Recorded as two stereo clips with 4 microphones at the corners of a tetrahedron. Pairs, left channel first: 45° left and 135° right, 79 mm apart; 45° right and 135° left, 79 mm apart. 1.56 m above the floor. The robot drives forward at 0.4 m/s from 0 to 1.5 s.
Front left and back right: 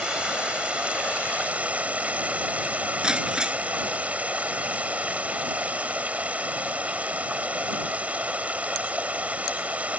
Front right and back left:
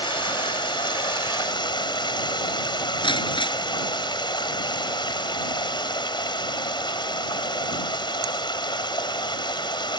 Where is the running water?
60° right; by 10.0 s 65° right.